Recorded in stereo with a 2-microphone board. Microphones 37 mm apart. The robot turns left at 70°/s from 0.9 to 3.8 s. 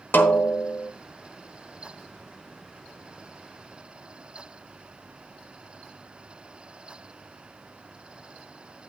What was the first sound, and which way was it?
A snare drum, 60° left (ahead or behind).